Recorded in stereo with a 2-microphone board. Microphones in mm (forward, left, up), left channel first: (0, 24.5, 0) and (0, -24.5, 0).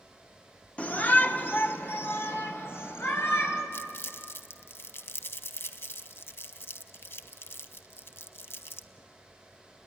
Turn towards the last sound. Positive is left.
turn(degrees=55)  # may be behind; listen again after turning